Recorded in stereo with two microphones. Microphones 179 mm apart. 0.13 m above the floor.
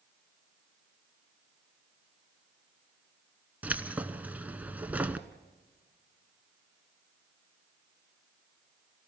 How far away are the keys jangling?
About 0.9 m.